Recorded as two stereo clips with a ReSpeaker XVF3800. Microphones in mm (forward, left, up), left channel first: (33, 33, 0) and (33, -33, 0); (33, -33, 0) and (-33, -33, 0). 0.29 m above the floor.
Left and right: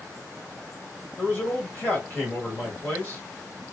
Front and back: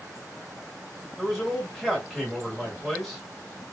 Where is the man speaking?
95° left, 1.5 m.